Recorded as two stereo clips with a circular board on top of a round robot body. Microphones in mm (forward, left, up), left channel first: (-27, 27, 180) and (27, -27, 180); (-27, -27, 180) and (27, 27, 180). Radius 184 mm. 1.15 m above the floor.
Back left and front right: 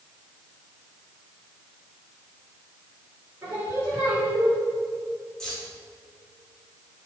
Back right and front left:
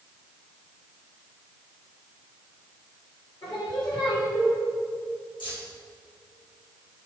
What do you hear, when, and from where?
3.4 s singing: 105° right, 3 m
5.4 s keys jangling: 140° right, 2.5 m